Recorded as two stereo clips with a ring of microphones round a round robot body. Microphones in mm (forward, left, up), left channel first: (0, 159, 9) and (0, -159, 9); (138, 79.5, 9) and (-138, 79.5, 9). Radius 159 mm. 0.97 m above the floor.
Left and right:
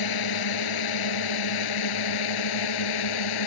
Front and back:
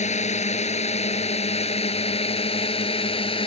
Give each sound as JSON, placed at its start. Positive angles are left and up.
{"t": 0.0, "sound": "a drone", "azimuth_deg": 65}